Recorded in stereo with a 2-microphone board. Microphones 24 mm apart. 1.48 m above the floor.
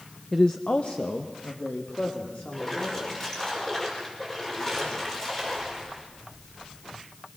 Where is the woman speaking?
10° left (ahead or behind), 0.7 m; by 3.3 s 85° left, 4.5 m.